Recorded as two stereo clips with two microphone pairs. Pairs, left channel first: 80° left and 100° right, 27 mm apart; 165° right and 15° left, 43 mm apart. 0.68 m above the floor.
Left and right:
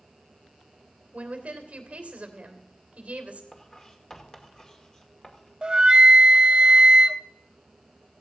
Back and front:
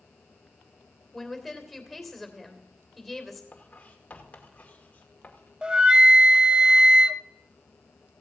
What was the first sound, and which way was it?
A woman speaking, 70° right.